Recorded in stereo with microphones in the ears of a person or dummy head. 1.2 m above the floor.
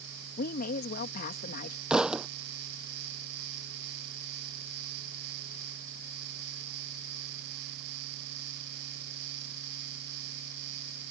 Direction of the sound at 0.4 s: 60° left (ahead or behind).